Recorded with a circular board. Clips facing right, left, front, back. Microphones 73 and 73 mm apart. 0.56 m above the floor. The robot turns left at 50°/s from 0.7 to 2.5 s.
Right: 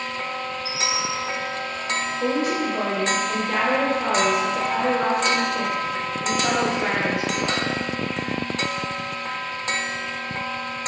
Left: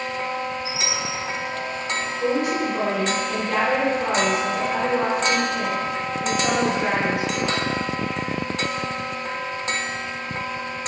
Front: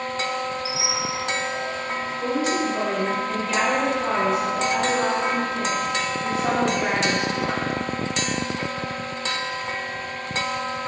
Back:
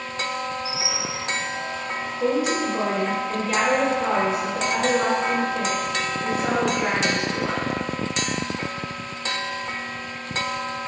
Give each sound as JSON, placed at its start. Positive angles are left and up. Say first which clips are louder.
{"t": 0.7, "sound": "a squeak", "louder": "right 1 dB, front 2 dB", "azimuth_deg": 75, "distance_m": 1.6}
{"t": 2.2, "sound": "a woman speaking", "louder": "left 1 dB, back 2 dB", "azimuth_deg": -100, "distance_m": 1.1}